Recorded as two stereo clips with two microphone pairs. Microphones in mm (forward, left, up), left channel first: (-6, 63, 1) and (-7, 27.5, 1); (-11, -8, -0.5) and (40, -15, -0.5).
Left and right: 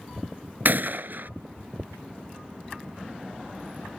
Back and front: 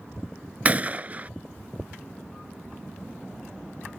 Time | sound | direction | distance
0.7 | a gunshot | 65° right | ?